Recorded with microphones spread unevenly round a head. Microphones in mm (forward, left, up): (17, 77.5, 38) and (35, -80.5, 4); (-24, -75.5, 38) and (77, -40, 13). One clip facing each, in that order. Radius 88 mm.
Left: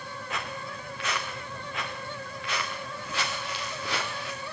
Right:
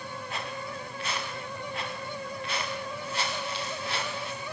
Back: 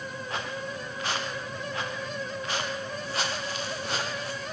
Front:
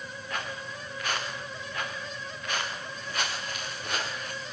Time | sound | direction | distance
0.3 | footsteps | 130° left | 3.5 m